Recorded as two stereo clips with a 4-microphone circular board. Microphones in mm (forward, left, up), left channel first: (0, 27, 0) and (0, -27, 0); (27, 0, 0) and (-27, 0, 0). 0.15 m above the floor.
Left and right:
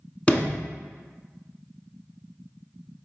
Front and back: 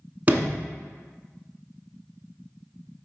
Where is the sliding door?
145° left, 0.7 m.